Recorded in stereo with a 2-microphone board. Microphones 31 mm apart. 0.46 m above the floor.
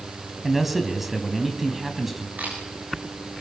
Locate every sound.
0.4 s a man speaking: 5° right (ahead or behind), 3.5 m
2.4 s a camera shutter: 80° right, 10 m